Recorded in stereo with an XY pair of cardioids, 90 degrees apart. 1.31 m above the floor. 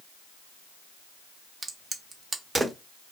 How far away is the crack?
About 0.8 m.